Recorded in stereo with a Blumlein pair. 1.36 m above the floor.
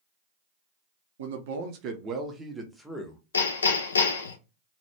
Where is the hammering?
70° left, 0.6 m.